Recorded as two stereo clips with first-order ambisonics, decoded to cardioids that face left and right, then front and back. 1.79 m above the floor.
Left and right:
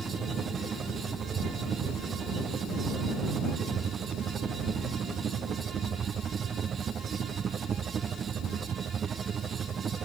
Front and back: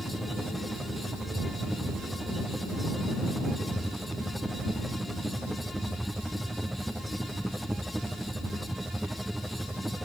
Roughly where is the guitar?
No guitar in this recording.